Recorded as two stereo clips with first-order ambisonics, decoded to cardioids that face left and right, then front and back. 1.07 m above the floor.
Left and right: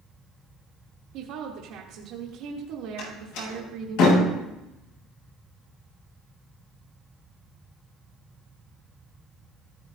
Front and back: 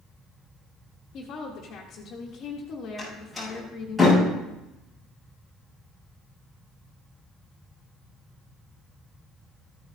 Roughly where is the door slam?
Left.